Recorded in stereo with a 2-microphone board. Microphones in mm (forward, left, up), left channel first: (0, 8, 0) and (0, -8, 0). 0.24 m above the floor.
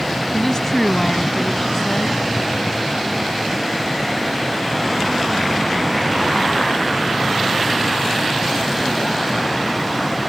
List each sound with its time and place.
0.3 s a woman speaking: 35° left (ahead or behind)